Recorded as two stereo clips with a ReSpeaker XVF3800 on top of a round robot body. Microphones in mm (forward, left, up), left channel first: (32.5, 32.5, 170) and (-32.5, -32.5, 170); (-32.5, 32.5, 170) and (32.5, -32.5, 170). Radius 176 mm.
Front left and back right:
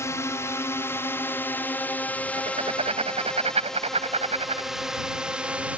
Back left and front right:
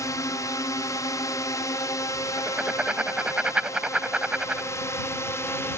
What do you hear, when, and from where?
0.0 s a drone: 95° left; by 5.8 s 165° left
2.4 s writing: 125° right